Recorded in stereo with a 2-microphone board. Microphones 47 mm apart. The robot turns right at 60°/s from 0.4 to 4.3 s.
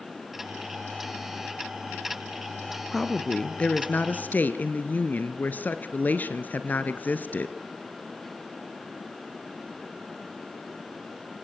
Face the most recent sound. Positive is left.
turn(degrees=85)